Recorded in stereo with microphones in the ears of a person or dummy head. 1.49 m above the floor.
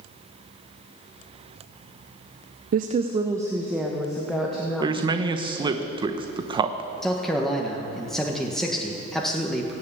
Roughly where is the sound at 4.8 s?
Right.